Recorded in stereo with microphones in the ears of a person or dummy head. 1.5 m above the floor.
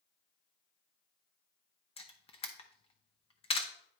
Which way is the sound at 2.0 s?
25° left (ahead or behind).